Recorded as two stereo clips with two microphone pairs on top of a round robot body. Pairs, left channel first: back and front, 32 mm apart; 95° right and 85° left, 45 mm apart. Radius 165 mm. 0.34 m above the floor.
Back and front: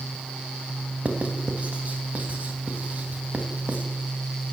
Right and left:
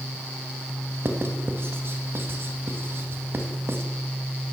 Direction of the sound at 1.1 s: 50° left.